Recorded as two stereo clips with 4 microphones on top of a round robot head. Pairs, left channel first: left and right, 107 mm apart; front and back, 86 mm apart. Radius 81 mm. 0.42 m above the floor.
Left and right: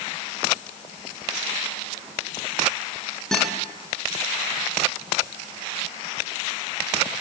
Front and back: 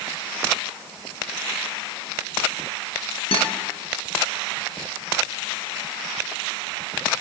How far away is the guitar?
About 5.5 m.